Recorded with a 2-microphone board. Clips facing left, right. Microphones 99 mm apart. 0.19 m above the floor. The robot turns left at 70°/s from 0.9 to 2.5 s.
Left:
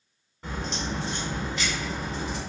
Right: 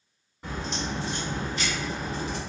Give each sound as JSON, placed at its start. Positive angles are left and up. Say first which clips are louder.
{"t": 0.4, "sound": "a crack", "louder": "even", "azimuth_deg": -5, "distance_m": 1.6}